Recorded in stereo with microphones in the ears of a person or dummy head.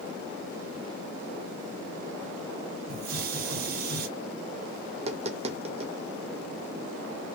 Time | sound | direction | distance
2.9 | a hiss | 45° right (ahead or behind) | 0.8 m
4.9 | tapping | 35° right (ahead or behind) | 0.6 m